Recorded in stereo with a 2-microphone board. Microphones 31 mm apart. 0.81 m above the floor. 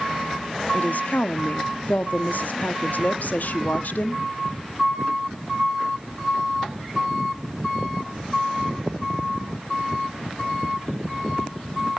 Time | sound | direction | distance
0.7 | a woman speaking | 65° left (ahead or behind) | 1.1 m